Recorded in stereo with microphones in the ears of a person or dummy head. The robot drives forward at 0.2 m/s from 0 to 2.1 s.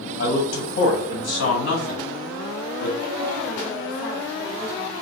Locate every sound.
0.2 s a man speaking: 75° left (ahead or behind), 1.4 m; by 2.9 s 60° left (ahead or behind), 1.6 m
3.0 s a woman speaking: 15° left (ahead or behind), 2 m